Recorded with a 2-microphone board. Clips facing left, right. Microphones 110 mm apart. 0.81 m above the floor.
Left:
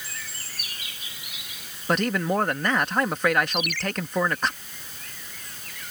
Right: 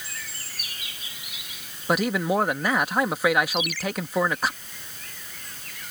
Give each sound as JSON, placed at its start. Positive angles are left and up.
{"t": 1.9, "sound": "a man speaking", "side_deg": -10}
{"t": 3.5, "sound": "a ringtone", "side_deg": 60}